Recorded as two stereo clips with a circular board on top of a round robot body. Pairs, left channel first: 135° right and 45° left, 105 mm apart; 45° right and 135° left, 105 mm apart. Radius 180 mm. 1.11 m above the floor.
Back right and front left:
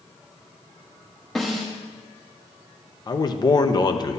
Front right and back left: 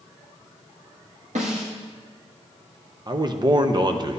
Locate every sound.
1.4 s a snare drum: 140° left, 0.6 m
3.1 s a man speaking: straight behind, 0.8 m